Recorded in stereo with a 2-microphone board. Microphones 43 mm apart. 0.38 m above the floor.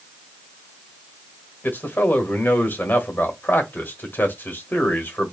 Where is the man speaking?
45° left (ahead or behind), 1.4 m.